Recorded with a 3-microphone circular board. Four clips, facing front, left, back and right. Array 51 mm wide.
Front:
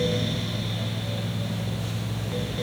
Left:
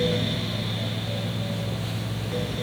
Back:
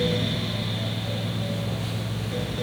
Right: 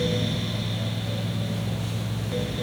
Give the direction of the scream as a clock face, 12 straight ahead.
No scream in this recording.